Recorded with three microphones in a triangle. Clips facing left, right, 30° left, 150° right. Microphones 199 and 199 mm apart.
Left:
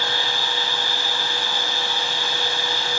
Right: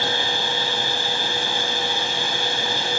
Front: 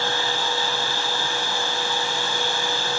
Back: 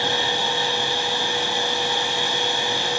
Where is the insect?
125° right, 3.5 m.